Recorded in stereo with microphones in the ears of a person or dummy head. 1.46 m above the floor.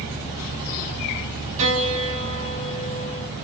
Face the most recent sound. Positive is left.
turn(degrees=-40)  # may be behind; listen again after turning